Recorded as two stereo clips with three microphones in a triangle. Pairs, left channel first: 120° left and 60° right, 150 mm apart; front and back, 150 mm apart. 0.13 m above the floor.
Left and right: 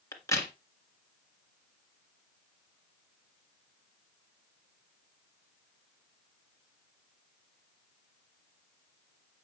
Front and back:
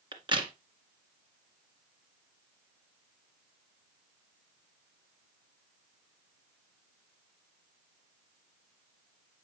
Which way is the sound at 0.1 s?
170° left.